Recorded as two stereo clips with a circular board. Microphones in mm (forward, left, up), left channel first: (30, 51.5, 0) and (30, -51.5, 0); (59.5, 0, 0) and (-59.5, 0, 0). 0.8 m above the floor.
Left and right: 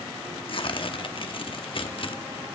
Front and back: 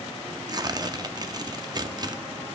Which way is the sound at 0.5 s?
120° left.